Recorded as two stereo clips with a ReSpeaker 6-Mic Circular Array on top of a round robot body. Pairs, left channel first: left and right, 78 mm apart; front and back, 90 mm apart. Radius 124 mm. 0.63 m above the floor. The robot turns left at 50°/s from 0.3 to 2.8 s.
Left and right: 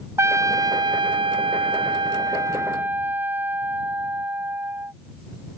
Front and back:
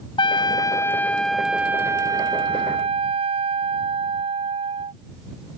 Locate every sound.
0.2 s a trumpet: 35° right; by 4.9 s 160° right